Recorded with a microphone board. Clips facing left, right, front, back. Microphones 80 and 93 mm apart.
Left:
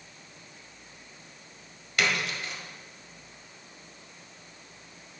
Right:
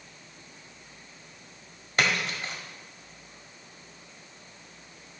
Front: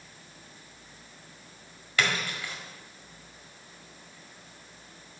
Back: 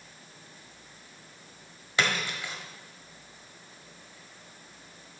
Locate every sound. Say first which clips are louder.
2.0 s a splash: right 1 dB, even; 120° right, 1.6 m